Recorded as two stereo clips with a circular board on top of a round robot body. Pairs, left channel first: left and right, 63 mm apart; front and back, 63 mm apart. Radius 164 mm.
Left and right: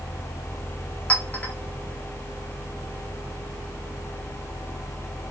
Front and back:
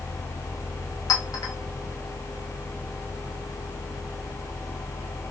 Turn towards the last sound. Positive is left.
turn(degrees=20)